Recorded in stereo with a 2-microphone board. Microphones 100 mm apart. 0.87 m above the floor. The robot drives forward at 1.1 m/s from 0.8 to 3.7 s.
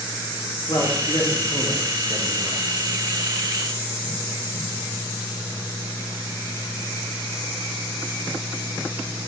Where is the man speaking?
40° left (ahead or behind), 1.7 m; by 2.6 s 20° left (ahead or behind), 3 m.